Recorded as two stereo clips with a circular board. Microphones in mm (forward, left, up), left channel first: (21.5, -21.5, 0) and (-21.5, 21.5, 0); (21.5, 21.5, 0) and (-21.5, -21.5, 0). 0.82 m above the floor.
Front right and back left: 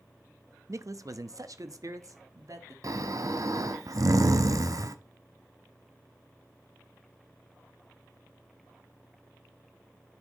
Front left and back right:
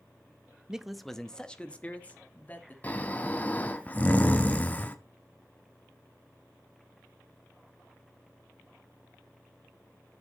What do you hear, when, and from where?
0.7 s a man speaking: 150° left, 0.6 m; by 2.7 s 105° left, 1.6 m
2.8 s snoring: 110° left, 0.7 m